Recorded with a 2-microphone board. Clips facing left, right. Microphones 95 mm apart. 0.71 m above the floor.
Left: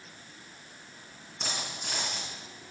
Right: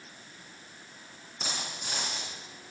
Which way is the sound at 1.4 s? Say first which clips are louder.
Left 1 dB; centre (ahead or behind).